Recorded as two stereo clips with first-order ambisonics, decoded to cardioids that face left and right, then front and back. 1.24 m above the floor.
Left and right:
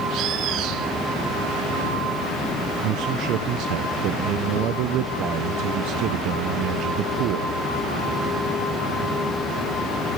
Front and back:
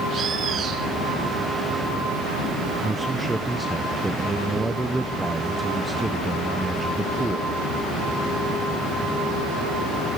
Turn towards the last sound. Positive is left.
turn(degrees=-100)